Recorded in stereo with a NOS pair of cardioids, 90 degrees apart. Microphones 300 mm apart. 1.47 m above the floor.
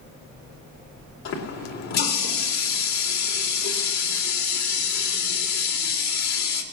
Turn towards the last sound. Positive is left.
turn(degrees=65)